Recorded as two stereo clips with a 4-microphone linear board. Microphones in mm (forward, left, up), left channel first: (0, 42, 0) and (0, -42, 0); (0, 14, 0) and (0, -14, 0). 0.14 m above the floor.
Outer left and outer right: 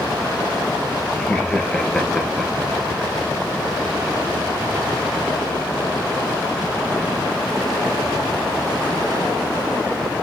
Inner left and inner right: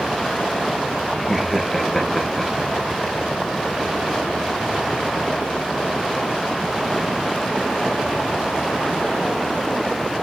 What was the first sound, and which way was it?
Laughter, 10° left (ahead or behind).